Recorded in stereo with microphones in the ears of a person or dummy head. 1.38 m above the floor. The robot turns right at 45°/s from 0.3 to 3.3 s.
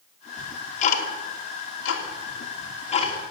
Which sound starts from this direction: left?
Ticking, at 0.4 s.